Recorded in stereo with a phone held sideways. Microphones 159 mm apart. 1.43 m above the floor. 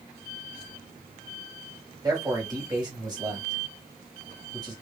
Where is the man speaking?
25° right (ahead or behind), 1.7 m.